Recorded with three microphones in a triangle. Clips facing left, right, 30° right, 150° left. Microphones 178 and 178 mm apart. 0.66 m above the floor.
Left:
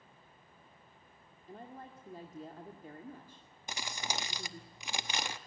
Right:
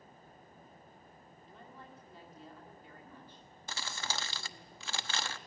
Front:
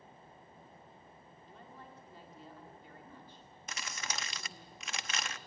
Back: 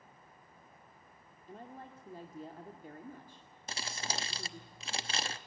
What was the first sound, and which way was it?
A woman speaking, 120° left.